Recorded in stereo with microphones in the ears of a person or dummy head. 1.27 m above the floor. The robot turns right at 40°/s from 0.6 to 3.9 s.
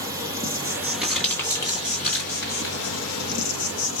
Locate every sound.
0.0 s an insect: 20° right, 0.9 m; by 4.0 s 110° left, 0.9 m
1.0 s crumpling: centre (ahead or behind), 2 m; by 2.8 s 65° left (ahead or behind), 2 m